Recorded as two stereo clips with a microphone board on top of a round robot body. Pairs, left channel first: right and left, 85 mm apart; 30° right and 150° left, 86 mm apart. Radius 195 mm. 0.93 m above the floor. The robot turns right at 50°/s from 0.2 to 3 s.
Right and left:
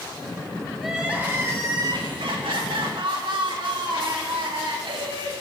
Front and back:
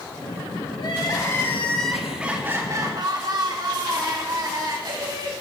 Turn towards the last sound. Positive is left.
turn(degrees=110)